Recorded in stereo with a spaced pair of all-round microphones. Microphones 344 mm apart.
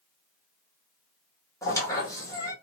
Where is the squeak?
10° left (ahead or behind), 1.0 m.